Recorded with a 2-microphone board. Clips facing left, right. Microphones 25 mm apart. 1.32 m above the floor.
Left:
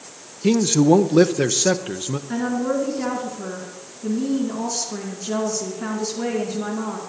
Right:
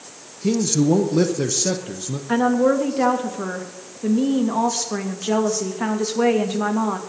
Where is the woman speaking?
75° right (ahead or behind), 2.5 m.